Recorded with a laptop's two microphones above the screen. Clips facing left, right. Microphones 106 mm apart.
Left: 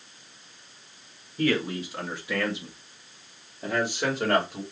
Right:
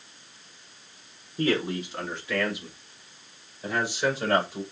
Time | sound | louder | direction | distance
1.4 | a man speaking | even | 20° right (ahead or behind) | 1.1 m